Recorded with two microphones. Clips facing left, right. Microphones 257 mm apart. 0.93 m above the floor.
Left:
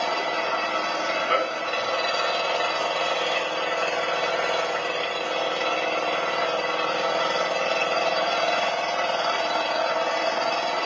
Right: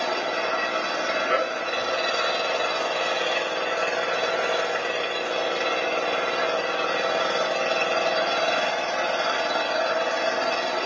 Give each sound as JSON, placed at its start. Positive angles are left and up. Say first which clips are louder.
{"t": 0.0, "sound": "an engine running", "louder": "right 1 dB", "side_deg": -20, "distance_m": 0.9}